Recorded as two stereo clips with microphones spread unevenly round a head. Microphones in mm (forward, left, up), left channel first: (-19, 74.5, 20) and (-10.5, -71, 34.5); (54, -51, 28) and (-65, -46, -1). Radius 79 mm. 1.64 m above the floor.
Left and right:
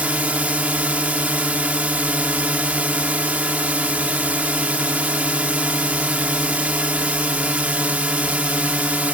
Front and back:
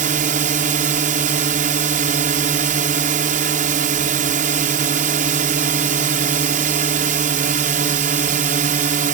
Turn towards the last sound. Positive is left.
turn(degrees=-165)